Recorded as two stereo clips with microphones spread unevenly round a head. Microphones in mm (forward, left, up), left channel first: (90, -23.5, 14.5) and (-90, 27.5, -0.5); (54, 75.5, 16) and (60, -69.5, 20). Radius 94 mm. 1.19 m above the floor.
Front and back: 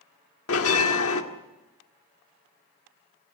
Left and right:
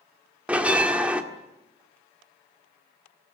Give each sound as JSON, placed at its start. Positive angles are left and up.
{"t": 0.5, "sound": "a bell", "azimuth_deg": -5, "distance_m": 1.8}